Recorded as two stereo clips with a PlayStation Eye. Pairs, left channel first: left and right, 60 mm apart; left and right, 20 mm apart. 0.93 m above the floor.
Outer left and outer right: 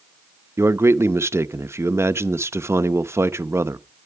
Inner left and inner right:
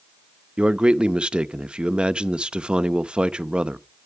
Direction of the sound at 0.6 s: 50° right (ahead or behind).